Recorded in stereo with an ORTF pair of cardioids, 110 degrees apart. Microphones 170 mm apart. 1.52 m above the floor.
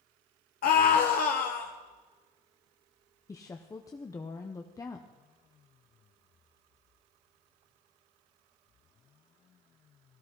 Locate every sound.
0.6 s a scream: 60° left, 1.0 m
3.3 s a woman speaking: 20° left, 0.7 m